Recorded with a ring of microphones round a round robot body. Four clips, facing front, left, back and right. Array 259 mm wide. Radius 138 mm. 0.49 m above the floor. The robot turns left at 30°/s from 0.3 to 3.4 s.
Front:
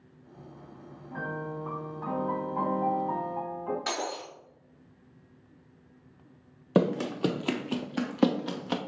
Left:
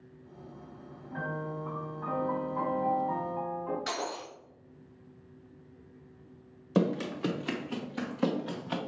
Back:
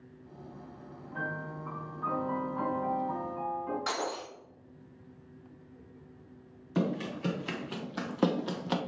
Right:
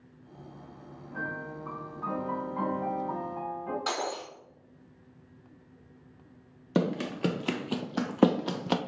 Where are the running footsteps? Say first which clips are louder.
Even, front 6 dB; 10° right, 0.8 m; by 8.8 s 95° right, 1.0 m.